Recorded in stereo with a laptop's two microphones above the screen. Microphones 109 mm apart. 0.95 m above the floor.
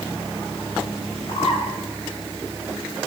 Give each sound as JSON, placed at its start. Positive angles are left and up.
{"t": 1.3, "sound": "a bird", "side_deg": 60, "distance_m": 5.5}